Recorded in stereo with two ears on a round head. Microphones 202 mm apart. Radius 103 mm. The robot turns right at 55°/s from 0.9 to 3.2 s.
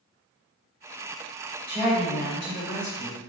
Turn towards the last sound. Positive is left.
turn(degrees=70)